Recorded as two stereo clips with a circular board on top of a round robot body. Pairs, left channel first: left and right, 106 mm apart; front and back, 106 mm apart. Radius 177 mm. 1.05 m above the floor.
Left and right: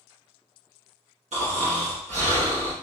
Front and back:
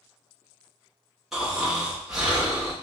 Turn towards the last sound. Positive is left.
turn(degrees=-95)